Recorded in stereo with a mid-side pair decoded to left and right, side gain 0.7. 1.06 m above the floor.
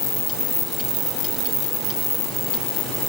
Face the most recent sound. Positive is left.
No sound to turn to.